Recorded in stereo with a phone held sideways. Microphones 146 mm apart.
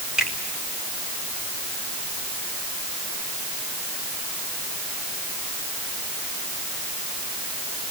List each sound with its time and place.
0.2 s a finger snap: 5° right (ahead or behind), 5 m